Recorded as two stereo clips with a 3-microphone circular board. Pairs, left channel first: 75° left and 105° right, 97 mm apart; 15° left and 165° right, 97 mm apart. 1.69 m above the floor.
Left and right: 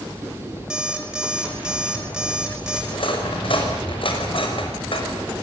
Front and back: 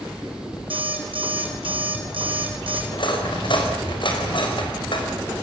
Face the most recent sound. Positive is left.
turn(degrees=50)